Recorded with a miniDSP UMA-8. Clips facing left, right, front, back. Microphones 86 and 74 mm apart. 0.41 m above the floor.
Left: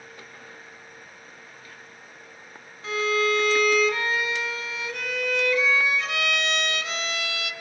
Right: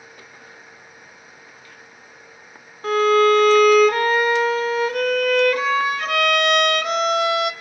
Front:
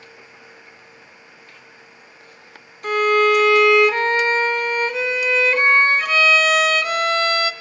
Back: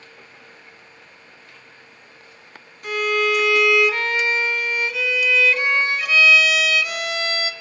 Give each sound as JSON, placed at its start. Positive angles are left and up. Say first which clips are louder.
{"t": 2.8, "sound": "a violin", "louder": "right 9 dB, front 5 dB", "azimuth_deg": -50, "distance_m": 0.9}